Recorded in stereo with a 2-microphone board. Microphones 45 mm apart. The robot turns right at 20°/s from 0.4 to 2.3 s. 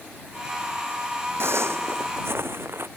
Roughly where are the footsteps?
Right.